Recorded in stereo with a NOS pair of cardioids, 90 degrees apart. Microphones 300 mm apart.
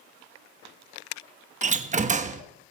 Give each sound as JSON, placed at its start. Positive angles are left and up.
{"t": 1.6, "sound": "a door slam", "azimuth_deg": -25, "distance_m": 1.1}